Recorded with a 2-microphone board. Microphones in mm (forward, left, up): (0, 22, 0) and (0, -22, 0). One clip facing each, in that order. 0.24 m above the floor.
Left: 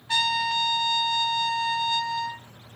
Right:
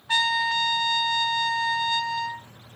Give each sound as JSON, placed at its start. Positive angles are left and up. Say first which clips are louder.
{"t": 0.1, "sound": "a trumpet", "louder": "right 2 dB", "side_deg": -20, "distance_m": 0.5}